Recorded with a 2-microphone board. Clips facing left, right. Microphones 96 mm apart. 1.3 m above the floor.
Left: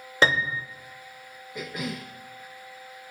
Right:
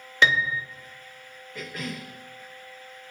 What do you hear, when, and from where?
0.2 s a piano: 35° left (ahead or behind), 0.6 m
1.6 s a cough: 15° left (ahead or behind), 0.9 m